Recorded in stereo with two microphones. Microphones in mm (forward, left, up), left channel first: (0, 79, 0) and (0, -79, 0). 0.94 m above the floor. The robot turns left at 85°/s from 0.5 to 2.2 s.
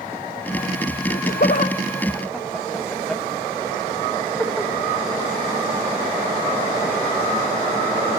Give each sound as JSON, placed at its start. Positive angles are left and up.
{"t": 1.1, "sound": "laughter", "side_deg": 65, "distance_m": 0.7}